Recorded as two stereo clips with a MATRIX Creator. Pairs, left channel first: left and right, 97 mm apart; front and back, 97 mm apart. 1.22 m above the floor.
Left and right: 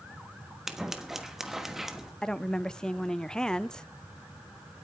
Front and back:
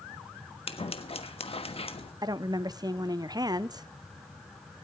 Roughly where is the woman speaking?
Behind.